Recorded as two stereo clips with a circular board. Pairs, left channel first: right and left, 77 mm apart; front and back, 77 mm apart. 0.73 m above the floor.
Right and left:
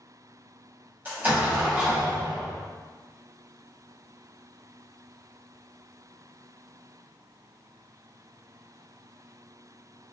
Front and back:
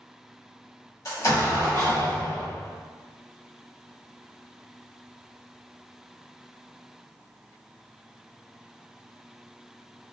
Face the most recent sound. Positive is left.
turn(degrees=35)